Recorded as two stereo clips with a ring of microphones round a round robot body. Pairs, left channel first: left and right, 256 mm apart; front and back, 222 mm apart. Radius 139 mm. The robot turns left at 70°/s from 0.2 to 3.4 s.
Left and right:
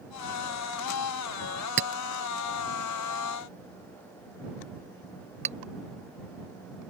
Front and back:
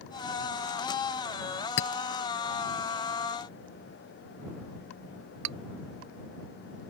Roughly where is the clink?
Ahead right.